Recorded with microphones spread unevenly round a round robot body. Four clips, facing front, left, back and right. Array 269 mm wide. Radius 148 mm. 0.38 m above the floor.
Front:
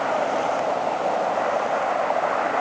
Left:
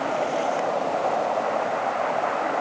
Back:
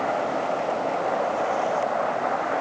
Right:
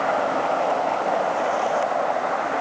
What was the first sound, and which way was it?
Only background noise.